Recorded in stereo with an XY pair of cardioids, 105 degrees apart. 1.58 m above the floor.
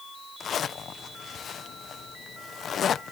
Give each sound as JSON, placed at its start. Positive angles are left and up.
{"t": 0.4, "sound": "a zipper", "azimuth_deg": 55}